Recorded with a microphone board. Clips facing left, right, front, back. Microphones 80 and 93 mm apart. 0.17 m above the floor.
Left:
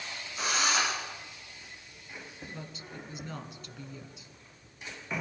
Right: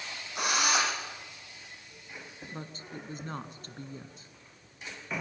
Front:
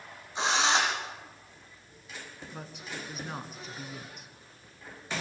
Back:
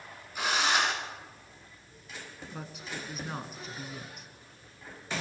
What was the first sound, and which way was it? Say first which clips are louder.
A drill: right 1 dB, front 2 dB; 65° right.